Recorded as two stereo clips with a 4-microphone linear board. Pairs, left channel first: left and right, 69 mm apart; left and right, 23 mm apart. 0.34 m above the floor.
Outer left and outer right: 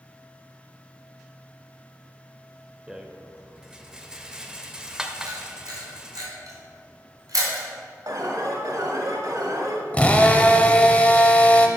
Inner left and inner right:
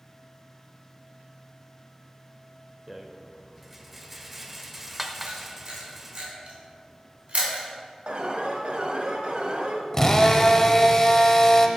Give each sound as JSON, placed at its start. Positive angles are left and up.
{"t": 2.9, "sound": "a rattle", "side_deg": -10, "distance_m": 0.7}
{"t": 5.3, "sound": "a camera shutter", "side_deg": -65, "distance_m": 3.0}
{"t": 8.1, "sound": "an alarm", "side_deg": -60, "distance_m": 1.1}
{"t": 9.9, "sound": "a drill", "side_deg": 20, "distance_m": 0.7}